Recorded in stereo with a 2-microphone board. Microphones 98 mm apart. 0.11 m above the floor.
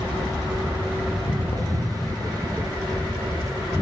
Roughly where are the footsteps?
Left.